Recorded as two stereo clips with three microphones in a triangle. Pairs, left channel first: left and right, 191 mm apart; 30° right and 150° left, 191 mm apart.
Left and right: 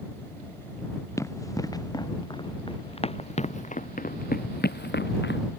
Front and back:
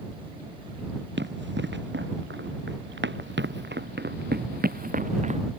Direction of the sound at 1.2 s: 165° left.